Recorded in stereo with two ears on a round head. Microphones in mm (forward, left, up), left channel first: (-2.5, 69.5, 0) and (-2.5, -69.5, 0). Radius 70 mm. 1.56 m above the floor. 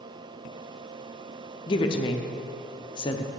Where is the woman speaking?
30° left (ahead or behind), 0.5 m.